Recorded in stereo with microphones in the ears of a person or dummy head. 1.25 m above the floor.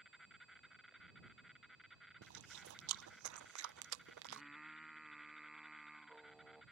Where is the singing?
Centre (ahead or behind).